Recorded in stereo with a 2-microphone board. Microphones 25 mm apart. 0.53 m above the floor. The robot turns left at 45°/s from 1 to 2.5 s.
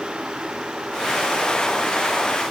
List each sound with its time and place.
Only background noise.